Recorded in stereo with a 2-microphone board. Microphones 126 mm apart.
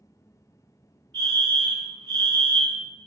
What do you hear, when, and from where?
1.1 s a fire alarm: 15° left (ahead or behind), 1.9 m